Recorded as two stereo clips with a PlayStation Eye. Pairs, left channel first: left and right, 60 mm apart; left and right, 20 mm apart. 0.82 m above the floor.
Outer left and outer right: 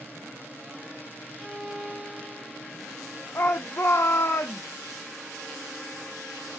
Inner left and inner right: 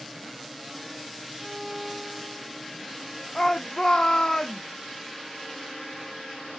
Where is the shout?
45° left (ahead or behind), 0.9 m.